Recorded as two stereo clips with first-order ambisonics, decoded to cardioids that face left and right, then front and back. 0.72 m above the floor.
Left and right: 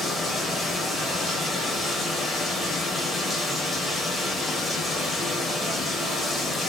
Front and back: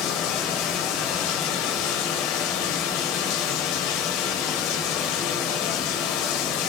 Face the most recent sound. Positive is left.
turn(degrees=10)